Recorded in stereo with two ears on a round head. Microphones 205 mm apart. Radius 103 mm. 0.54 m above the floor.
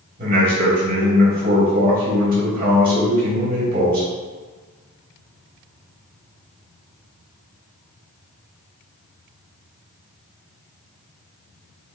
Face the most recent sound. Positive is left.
turn(degrees=-40)  # may be behind; listen again after turning